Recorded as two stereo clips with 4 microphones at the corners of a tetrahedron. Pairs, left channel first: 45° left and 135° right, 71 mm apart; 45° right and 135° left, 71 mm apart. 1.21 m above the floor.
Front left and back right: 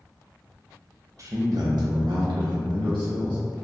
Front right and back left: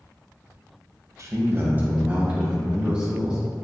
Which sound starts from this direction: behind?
A man speaking, at 1.2 s.